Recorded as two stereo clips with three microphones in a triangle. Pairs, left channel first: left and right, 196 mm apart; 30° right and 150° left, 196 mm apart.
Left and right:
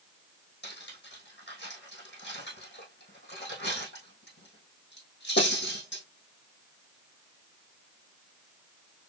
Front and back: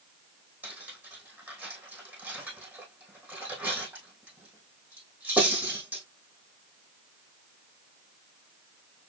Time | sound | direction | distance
0.6 | cutlery clinking | 70° left | 3 m